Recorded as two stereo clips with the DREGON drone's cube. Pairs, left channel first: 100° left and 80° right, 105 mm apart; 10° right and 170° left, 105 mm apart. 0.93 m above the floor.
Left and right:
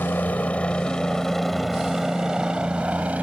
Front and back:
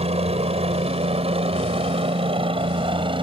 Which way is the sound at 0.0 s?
175° left.